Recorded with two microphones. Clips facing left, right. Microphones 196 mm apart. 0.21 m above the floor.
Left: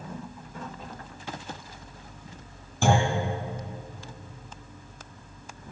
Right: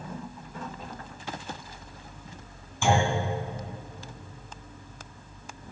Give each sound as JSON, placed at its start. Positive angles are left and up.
{"t": 2.8, "sound": "a clunk", "side_deg": 40, "distance_m": 2.5}